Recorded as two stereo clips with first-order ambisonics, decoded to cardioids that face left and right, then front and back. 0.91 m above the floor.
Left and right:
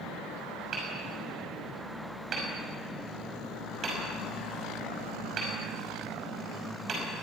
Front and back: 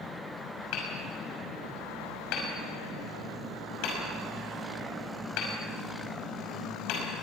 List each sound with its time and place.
0.7 s hammering: 30° right, 5.5 m